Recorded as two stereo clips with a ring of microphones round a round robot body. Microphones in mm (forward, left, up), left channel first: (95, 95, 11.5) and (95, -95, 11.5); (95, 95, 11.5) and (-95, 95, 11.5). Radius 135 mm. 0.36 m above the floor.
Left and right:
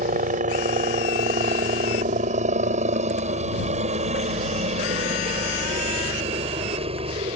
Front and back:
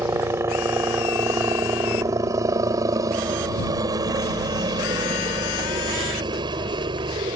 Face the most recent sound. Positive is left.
turn(degrees=-130)